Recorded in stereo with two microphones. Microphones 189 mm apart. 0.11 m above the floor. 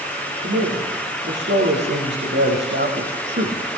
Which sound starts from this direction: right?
A man speaking, at 0.4 s.